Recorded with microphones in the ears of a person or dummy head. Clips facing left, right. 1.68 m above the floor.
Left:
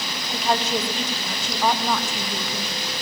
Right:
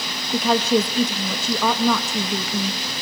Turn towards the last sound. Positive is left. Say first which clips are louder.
# right 6 dB
turn(degrees=-85)